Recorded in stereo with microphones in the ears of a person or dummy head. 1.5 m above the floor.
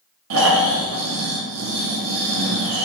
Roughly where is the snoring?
Right.